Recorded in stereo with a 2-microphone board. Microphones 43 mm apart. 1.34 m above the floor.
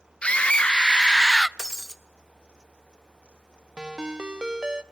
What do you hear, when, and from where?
0.2 s a scream: 25° left (ahead or behind), 1.5 m; by 1.5 s 5° left (ahead or behind), 0.6 m
1.6 s breaking glass: 15° left (ahead or behind), 1.0 m
3.8 s a ringtone: 20° right (ahead or behind), 0.8 m